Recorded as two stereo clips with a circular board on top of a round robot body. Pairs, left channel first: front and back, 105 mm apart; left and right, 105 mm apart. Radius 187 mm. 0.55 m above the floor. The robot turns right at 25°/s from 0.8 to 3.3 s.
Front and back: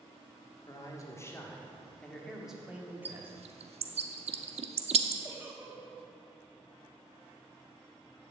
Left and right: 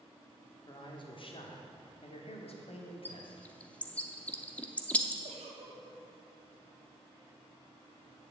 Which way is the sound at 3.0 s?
160° left.